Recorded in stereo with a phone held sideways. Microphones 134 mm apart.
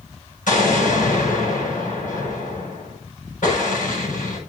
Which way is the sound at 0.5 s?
80° left.